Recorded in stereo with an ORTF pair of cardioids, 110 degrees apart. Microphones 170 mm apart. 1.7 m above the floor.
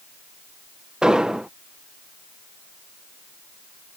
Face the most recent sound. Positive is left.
turn(degrees=-5)